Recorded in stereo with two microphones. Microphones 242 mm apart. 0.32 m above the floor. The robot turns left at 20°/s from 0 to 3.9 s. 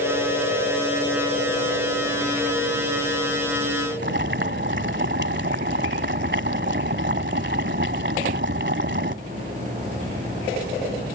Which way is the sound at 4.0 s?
50° right (ahead or behind).